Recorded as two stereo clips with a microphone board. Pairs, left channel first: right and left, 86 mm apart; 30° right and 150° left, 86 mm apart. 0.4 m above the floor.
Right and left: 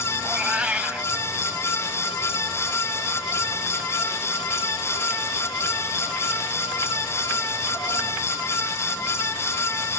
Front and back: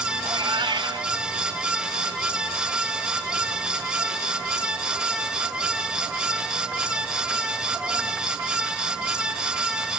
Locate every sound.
0.2 s a cat meowing: 165° left, 1.4 m